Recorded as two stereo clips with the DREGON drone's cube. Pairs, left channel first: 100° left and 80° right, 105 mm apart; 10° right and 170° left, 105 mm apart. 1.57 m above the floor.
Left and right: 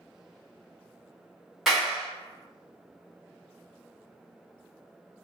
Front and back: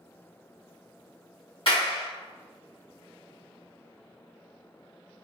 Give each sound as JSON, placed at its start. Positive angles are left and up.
{"t": 1.7, "sound": "a clap", "azimuth_deg": 10, "distance_m": 1.4}